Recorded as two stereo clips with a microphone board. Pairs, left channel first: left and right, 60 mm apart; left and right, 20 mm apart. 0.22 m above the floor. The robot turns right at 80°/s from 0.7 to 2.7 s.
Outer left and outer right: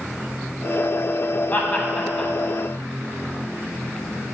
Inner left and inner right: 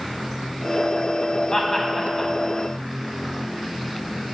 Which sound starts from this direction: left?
Laughter, at 1.5 s.